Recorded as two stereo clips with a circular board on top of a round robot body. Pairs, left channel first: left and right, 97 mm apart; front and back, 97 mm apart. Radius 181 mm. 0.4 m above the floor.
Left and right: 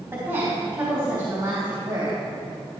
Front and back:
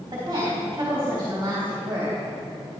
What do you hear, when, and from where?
0.1 s a woman speaking: 145° right, 2.5 m; by 2.2 s 130° right, 3.5 m